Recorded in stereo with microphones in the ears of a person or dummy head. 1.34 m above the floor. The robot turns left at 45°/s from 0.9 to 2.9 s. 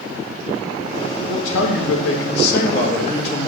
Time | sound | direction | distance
1.2 | a man speaking | 125° left | 2.0 m